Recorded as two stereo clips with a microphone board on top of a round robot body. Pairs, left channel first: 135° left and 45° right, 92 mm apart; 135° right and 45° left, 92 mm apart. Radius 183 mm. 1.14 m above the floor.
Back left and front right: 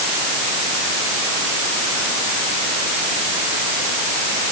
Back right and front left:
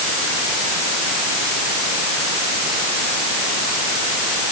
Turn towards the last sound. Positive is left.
No sound to turn to.